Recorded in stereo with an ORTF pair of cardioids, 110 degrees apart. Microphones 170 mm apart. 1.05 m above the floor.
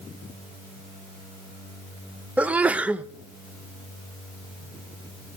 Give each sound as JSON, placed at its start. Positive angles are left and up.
{"t": 2.4, "sound": "a sneeze", "azimuth_deg": -5, "distance_m": 0.6}